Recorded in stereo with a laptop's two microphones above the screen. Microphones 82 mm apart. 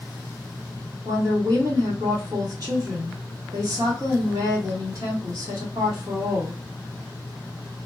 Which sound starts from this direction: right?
A woman speaking, at 1.1 s.